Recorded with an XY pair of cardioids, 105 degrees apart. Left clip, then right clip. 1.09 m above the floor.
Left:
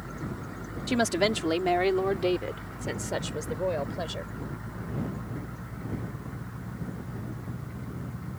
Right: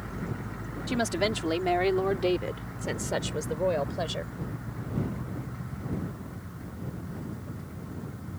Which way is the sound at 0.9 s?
25° left.